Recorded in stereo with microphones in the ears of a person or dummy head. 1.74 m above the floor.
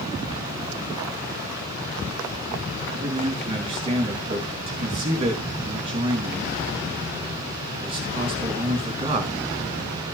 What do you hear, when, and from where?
2.9 s a man speaking: 30° right (ahead or behind), 3 m